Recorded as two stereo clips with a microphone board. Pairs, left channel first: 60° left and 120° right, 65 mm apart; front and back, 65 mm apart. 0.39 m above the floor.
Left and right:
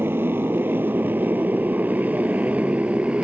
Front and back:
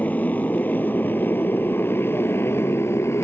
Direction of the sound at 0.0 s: 65° right.